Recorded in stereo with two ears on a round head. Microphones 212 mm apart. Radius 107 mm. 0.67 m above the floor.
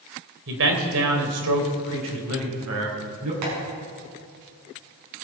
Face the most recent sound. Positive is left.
turn(degrees=-80)